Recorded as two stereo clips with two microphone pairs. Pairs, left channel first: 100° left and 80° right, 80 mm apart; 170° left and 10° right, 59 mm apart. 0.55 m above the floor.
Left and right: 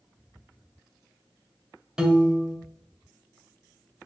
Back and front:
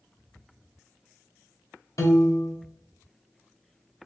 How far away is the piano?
About 0.6 m.